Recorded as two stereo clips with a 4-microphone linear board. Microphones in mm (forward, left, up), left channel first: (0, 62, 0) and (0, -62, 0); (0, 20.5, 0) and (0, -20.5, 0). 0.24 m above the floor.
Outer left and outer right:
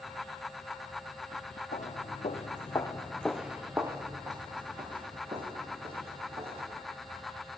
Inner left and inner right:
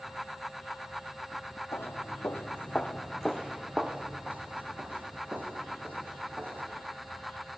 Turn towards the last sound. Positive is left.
turn(degrees=-50)  # may be behind; listen again after turning